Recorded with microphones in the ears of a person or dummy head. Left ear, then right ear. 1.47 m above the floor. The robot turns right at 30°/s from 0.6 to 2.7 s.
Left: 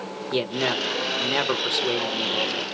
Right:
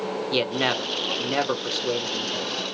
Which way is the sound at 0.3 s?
15° right.